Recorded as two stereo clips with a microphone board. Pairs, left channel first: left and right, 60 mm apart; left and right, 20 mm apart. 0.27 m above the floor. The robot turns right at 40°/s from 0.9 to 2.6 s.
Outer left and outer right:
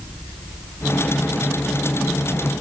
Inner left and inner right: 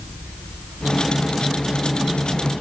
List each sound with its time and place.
Only background noise.